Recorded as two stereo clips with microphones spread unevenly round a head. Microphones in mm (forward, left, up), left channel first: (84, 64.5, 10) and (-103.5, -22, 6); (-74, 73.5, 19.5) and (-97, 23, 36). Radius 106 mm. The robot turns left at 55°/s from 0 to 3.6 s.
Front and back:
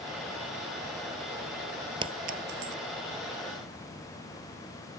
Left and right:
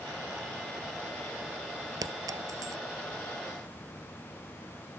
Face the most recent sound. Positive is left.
turn(degrees=-170)